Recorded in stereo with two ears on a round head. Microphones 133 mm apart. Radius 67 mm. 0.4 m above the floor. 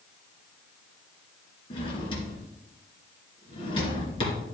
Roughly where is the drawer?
Left.